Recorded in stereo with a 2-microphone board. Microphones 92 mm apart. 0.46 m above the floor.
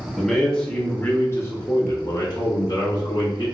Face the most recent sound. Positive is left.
turn(degrees=55)  # may be behind; listen again after turning